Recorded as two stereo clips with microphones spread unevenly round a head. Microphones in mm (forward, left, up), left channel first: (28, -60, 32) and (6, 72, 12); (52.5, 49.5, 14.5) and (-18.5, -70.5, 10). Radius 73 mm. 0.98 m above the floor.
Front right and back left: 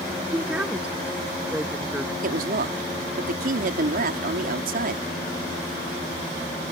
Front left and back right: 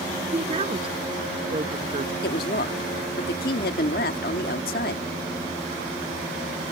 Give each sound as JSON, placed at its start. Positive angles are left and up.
{"t": 0.3, "sound": "a woman speaking", "azimuth_deg": 180}
{"t": 2.2, "sound": "a woman speaking", "azimuth_deg": 90}